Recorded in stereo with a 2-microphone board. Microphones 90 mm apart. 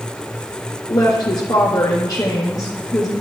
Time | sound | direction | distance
0.9 | a woman speaking | 40° left (ahead or behind) | 1.7 m